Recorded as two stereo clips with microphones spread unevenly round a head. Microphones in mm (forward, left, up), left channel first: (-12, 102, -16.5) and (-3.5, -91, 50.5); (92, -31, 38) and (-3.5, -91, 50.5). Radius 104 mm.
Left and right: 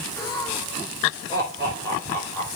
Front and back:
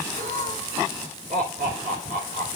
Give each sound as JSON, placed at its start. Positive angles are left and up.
{"t": 0.2, "sound": "laughter", "azimuth_deg": 165, "distance_m": 3.0}